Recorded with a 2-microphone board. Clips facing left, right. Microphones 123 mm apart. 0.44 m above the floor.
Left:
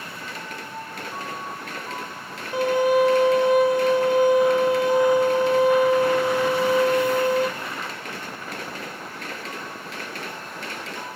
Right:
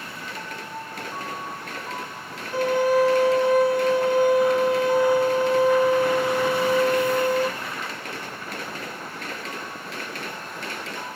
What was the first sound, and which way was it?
A violin, 15° left (ahead or behind).